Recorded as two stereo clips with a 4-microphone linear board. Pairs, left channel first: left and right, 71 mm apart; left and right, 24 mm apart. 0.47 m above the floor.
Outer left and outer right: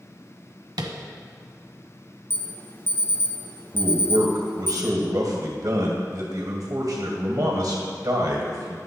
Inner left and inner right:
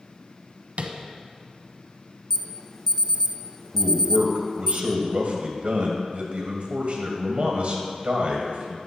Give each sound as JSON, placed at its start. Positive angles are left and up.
{"t": 0.8, "sound": "tapping", "side_deg": -80, "distance_m": 1.0}
{"t": 2.3, "sound": "an alarm", "side_deg": 30, "distance_m": 0.9}
{"t": 3.7, "sound": "a man speaking", "side_deg": -65, "distance_m": 2.0}